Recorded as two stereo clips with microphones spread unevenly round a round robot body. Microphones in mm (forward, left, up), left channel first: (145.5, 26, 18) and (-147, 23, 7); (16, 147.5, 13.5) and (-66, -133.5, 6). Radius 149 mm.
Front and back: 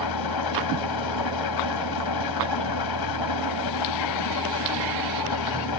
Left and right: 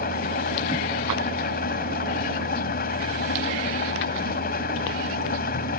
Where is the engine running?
10° left.